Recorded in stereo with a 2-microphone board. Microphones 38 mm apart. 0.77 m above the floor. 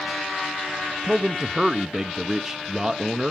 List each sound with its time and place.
1.0 s a man speaking: 20° right (ahead or behind), 0.6 m